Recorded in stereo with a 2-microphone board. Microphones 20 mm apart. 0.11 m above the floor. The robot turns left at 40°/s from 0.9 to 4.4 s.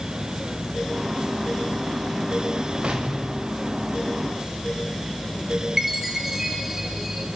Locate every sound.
2.8 s an explosion: 100° right, 4.5 m; by 4.5 s 165° right, 4.5 m
5.8 s a chime: 20° right (ahead or behind), 3.5 m